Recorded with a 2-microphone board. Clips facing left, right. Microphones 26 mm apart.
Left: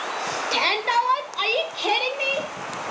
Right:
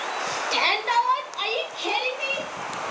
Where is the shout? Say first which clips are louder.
Even; centre (ahead or behind), 2 m; by 2.5 s 30° left (ahead or behind), 2.5 m.